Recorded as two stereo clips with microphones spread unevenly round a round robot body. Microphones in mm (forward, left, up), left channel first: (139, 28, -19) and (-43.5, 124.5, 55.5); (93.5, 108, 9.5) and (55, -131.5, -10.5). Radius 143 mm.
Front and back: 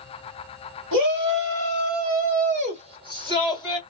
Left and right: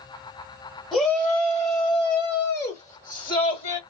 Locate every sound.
0.9 s a shout: 170° left, 1.5 m; by 3.8 s 50° left, 1.5 m